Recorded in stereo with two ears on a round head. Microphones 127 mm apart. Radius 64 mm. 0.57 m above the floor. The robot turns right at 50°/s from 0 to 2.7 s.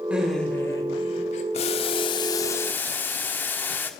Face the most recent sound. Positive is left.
turn(degrees=160)